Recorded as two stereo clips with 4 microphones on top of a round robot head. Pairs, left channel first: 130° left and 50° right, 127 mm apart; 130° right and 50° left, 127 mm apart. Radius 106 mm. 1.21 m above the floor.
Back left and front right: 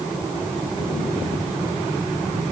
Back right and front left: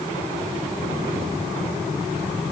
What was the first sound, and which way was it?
Only background noise.